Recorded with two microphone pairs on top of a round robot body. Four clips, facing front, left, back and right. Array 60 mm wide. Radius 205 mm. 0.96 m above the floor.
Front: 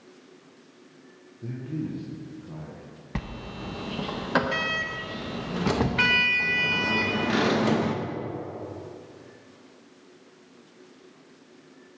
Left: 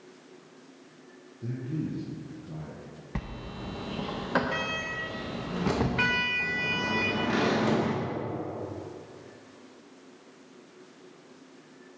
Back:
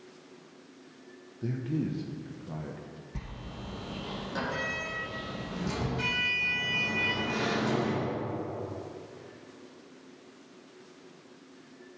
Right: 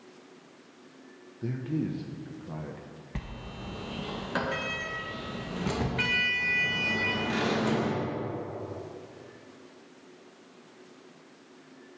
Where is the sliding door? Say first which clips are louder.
Left 3 dB, front 10 dB; 30° left, 0.6 m.